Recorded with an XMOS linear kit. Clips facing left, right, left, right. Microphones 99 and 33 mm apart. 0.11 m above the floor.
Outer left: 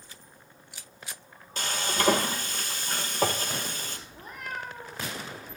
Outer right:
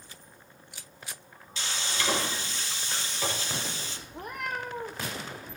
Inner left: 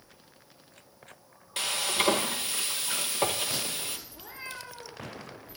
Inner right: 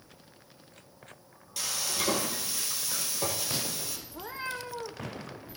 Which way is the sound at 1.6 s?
50° left (ahead or behind).